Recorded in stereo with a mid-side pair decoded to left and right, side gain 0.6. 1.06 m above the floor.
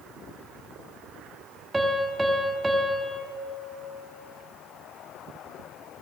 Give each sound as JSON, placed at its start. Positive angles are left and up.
{"t": 1.7, "sound": "a piano", "azimuth_deg": -15, "distance_m": 1.6}